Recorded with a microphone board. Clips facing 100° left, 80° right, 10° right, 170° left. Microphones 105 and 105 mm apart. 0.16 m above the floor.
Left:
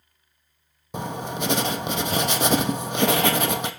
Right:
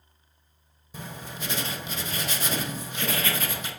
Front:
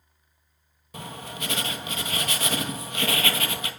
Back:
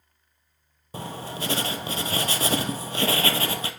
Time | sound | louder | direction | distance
0.9 | writing | left 10 dB, back 4 dB | 115° left | 0.7 m